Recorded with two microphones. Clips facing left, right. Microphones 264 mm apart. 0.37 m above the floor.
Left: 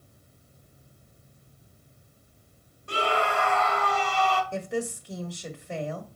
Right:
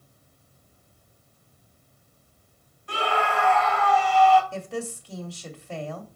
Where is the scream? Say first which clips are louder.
Even; 45° left (ahead or behind), 2.5 m.